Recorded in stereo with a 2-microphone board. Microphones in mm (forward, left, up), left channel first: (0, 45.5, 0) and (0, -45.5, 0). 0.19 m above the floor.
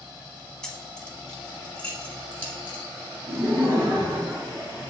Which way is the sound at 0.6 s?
5° left (ahead or behind).